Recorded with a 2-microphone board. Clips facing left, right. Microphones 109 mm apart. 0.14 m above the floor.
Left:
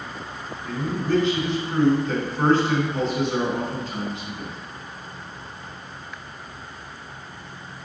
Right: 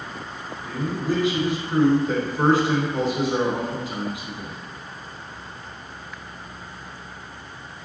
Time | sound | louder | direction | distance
0.6 | a man speaking | even | 10° right (ahead or behind) | 1.3 m